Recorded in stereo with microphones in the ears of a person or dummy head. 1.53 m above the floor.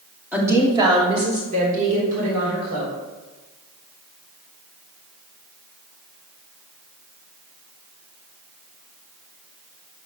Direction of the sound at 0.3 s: 5° right (ahead or behind).